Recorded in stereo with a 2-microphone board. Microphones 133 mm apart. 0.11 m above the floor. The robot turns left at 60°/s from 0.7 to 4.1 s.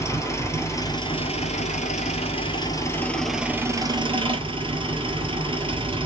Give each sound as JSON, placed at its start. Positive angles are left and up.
{"t": 0.0, "sound": "an engine running", "azimuth_deg": 155, "distance_m": 1.1}